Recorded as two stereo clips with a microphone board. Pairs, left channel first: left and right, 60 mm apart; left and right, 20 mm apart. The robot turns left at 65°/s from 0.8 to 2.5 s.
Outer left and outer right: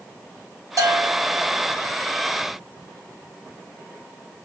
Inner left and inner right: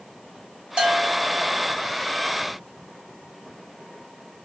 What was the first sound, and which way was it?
A bell, 55° right.